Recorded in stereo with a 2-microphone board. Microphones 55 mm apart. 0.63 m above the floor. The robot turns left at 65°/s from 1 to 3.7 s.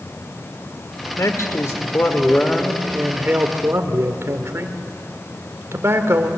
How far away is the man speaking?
About 2 m.